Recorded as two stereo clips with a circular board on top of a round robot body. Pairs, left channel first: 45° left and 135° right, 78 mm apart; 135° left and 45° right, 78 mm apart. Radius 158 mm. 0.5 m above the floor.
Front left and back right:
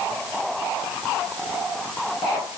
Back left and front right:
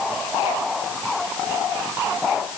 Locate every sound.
Only background noise.